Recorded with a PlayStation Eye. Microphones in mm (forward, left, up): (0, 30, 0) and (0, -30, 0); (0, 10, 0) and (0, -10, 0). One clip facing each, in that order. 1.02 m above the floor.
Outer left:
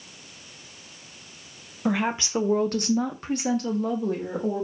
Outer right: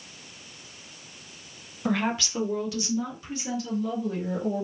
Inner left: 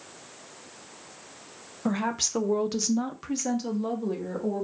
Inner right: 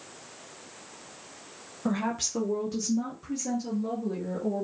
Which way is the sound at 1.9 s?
10° left (ahead or behind).